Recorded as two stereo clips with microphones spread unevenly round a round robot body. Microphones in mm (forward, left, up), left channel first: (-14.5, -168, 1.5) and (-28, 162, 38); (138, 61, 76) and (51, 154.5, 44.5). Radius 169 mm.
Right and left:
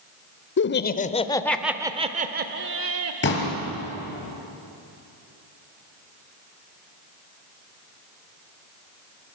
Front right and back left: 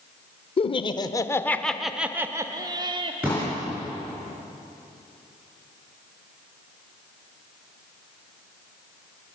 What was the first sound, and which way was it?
Laughter, 85° right.